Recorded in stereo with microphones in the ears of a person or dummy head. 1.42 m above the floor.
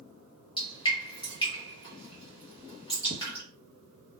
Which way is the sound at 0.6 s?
25° left (ahead or behind).